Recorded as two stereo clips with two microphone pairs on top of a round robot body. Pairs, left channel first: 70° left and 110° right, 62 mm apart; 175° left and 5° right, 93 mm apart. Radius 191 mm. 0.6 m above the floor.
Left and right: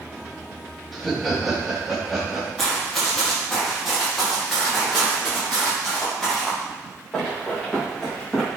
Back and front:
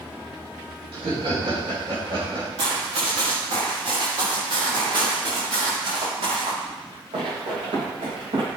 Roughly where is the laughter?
Ahead.